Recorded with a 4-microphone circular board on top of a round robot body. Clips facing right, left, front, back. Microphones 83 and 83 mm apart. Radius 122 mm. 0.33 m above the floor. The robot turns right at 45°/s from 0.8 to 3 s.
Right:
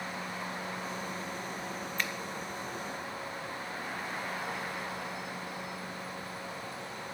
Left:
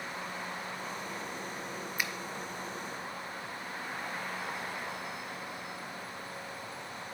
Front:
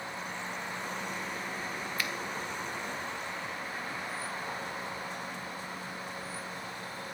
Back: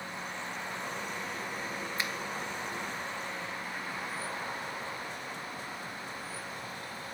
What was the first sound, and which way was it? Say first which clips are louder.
A finger snap: even, even; 155° left.